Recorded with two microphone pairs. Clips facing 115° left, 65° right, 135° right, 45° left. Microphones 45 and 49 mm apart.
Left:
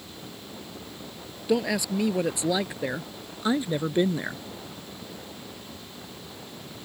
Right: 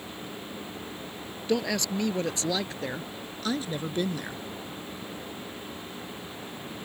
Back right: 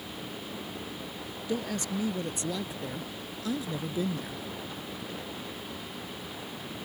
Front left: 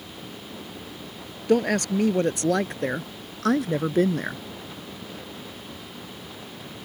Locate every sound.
1.5 s a woman speaking: 30° left; by 4.4 s 55° left